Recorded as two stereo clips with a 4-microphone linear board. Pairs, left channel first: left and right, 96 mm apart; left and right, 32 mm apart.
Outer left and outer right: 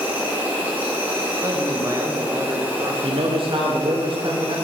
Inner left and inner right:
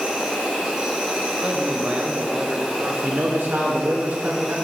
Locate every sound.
0.0 s an insect: 20° right (ahead or behind), 2 m
1.4 s a man speaking: 30° right (ahead or behind), 1.0 m
3.0 s a man speaking: 65° right (ahead or behind), 0.9 m